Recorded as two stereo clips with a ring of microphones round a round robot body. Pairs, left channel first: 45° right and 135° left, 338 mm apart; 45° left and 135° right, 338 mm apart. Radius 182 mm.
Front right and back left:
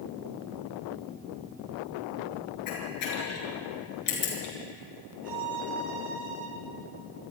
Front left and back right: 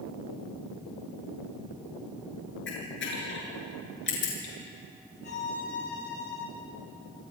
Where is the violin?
105° left, 7.5 m.